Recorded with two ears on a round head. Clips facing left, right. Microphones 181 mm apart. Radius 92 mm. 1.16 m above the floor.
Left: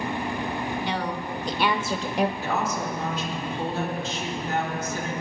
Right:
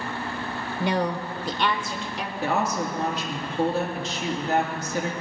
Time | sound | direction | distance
0.8 | a woman speaking | 45° right (ahead or behind) | 1.0 m
2.4 | a woman speaking | 55° right (ahead or behind) | 2.5 m